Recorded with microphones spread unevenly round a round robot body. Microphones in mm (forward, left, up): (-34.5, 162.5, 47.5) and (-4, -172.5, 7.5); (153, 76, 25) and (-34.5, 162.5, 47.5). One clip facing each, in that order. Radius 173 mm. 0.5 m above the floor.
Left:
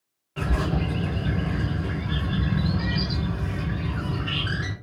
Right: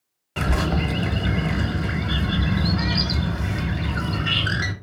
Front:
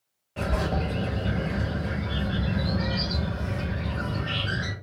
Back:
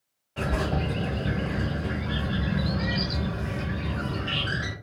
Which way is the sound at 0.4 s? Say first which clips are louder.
Right 3 dB, even; 100° right.